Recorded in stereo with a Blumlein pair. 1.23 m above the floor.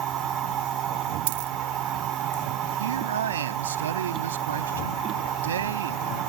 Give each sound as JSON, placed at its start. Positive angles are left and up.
{"t": 0.0, "sound": "a machine running", "azimuth_deg": -30}
{"t": 1.3, "sound": "a dropped coin", "azimuth_deg": -50}
{"t": 2.8, "sound": "a man speaking", "azimuth_deg": -65}